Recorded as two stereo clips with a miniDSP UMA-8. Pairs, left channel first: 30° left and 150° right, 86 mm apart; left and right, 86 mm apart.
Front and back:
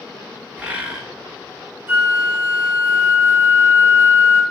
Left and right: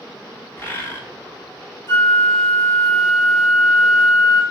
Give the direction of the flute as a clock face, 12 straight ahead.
7 o'clock.